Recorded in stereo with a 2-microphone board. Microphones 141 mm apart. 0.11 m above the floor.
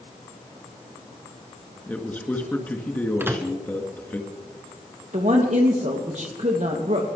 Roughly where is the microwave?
Centre.